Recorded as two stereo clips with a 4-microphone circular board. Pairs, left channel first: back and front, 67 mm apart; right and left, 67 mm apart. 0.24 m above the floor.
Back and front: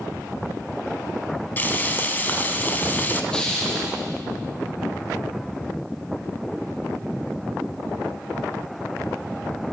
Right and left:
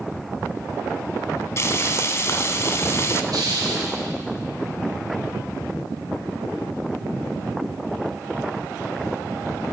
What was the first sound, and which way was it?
Frying, 125° right.